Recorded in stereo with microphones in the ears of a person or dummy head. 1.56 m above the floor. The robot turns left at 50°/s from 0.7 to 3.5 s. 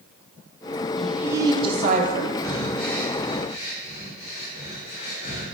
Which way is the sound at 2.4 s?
20° right (ahead or behind).